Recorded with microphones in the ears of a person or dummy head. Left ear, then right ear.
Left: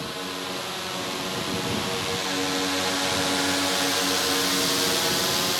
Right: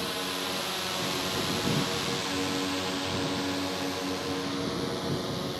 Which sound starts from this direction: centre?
A drone, at 0.0 s.